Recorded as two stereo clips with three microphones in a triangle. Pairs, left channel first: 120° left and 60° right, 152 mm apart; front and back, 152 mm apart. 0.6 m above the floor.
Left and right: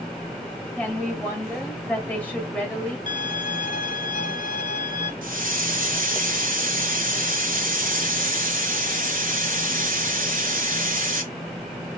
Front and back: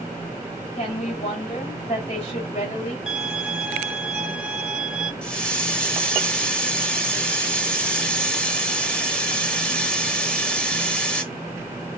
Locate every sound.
0.8 s a woman speaking: 40° left, 2.5 m
3.1 s a violin: 95° left, 1.0 m
5.2 s a hiss: 85° right, 1.0 m